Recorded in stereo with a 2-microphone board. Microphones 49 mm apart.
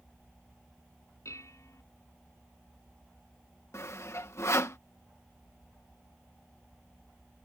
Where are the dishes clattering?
70° left (ahead or behind).